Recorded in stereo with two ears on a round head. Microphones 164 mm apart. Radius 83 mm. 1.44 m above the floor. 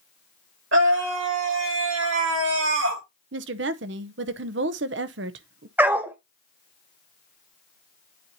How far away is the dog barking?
About 0.9 m.